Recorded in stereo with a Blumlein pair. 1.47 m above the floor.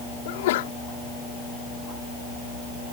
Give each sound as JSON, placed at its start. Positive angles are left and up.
{"t": 0.2, "sound": "a sneeze", "azimuth_deg": 55}